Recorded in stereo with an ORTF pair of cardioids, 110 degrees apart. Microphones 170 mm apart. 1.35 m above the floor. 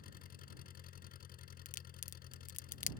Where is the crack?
45° left.